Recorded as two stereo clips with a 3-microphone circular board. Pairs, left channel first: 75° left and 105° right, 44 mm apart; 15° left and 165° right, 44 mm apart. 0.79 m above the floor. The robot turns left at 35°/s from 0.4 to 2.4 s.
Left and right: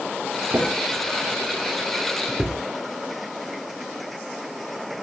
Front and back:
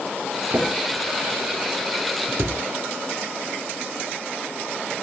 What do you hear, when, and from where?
0.5 s a drawer: 105° right, 6 m; by 2.6 s 175° right, 6 m